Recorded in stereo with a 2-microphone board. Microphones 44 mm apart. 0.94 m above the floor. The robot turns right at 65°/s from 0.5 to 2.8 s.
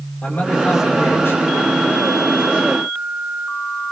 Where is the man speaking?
35° left, 5 m; by 2.1 s 140° left, 5 m.